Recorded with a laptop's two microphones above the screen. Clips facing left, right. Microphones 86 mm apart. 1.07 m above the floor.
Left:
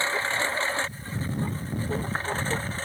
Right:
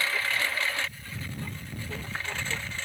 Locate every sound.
0.0 s a lawn mower: 30° left (ahead or behind); by 2.9 s 35° left (ahead or behind)